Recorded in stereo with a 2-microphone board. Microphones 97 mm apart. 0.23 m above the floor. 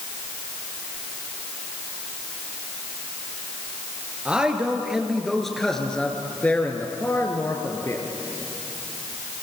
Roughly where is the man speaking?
Centre.